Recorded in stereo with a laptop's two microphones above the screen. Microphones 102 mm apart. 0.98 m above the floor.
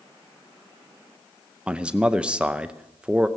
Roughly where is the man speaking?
Centre.